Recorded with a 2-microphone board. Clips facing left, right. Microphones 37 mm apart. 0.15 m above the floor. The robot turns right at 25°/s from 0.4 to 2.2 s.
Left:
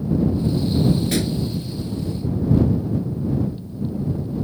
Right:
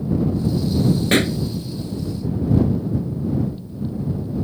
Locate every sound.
1.1 s a pop: 50° right (ahead or behind); by 1.4 s 55° right (ahead or behind)